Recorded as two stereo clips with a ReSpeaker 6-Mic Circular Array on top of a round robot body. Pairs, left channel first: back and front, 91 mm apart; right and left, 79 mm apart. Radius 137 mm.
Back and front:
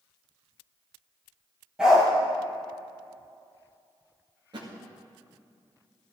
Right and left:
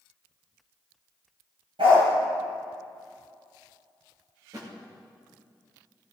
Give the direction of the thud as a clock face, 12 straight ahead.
11 o'clock.